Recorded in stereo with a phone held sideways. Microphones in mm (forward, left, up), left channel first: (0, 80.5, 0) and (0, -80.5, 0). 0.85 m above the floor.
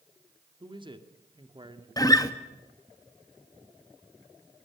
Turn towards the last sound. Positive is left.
turn(degrees=20)  # may be behind; listen again after turning